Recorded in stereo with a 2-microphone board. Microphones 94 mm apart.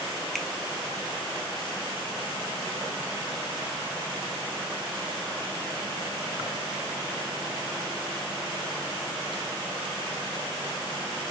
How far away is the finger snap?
About 1.5 m.